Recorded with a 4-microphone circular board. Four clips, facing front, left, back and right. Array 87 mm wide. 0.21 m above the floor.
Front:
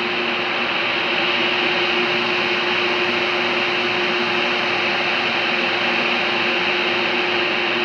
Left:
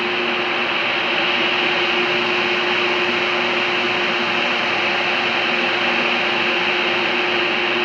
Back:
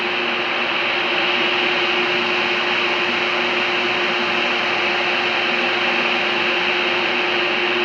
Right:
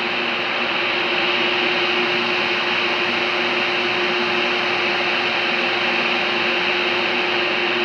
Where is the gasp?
No gasp in this recording.